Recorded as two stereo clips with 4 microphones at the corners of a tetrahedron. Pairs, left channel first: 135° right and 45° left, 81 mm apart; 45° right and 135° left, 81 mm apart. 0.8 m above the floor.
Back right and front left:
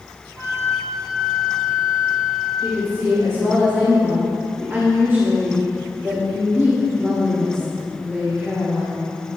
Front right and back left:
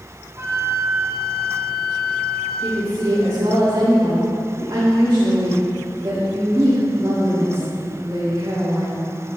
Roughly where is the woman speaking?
Left.